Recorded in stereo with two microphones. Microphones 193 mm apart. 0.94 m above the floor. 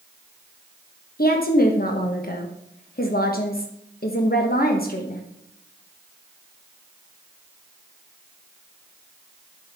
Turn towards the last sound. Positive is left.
turn(degrees=50)  # may be behind; listen again after turning